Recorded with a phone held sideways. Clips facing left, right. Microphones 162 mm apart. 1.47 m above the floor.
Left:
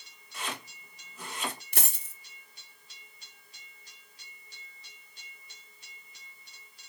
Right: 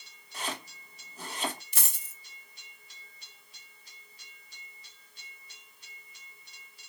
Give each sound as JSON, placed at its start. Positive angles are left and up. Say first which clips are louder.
{"t": 0.3, "sound": "chopping", "louder": "right 1 dB", "side_deg": -35, "distance_m": 2.5}
{"t": 1.7, "sound": "a dropped coin", "louder": "left 6 dB", "side_deg": 55, "distance_m": 1.3}